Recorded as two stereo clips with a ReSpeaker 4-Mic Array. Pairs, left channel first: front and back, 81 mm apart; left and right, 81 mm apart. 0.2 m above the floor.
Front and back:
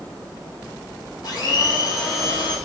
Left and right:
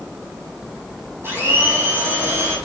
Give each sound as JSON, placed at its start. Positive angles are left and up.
{"t": 1.2, "sound": "a blender", "azimuth_deg": -30, "distance_m": 3.5}